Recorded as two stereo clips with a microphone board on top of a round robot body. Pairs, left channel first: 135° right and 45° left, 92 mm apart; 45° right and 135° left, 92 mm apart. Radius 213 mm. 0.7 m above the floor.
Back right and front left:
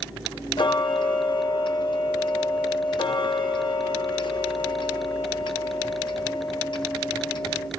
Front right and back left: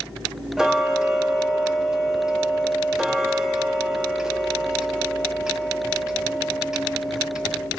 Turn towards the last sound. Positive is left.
turn(degrees=-140)